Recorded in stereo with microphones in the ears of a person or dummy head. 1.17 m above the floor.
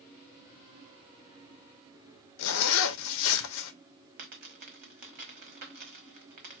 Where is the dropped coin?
45° right (ahead or behind), 1.0 m.